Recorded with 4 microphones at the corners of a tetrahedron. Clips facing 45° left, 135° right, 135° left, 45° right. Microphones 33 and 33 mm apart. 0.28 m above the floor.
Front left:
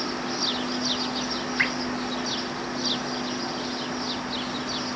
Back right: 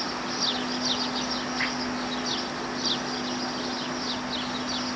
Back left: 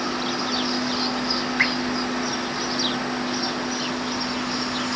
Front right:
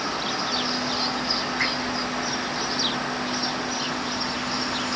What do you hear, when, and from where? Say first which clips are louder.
1.6 s dripping: front left 6 dB, back left 5 dB; 85° left, 0.7 m